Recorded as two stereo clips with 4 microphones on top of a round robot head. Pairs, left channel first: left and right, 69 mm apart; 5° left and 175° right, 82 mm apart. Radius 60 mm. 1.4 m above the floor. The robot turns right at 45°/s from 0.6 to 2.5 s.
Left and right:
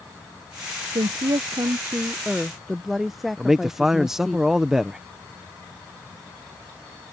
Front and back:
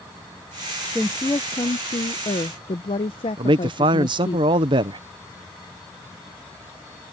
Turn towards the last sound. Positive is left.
turn(degrees=-175)